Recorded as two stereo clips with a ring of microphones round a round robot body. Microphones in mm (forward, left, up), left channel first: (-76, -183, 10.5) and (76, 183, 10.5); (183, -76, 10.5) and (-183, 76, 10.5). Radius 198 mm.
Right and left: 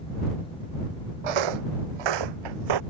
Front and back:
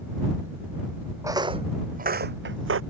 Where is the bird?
No bird in this recording.